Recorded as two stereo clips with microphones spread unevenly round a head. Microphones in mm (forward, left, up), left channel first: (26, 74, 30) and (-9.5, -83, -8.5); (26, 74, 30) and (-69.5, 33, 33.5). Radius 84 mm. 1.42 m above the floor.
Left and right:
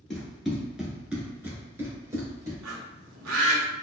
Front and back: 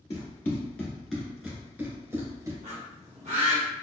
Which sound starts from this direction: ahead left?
Running footsteps, at 0.1 s.